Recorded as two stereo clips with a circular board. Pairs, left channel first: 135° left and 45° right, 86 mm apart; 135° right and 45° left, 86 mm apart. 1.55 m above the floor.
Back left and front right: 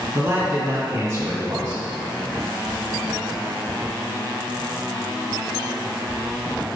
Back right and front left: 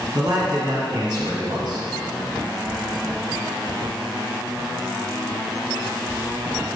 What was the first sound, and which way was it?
A man speaking, 5° left.